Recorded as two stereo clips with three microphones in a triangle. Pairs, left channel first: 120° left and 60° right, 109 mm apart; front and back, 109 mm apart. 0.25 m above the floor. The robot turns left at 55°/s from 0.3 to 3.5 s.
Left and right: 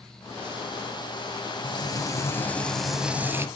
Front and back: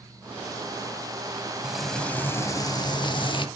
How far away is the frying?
About 0.6 m.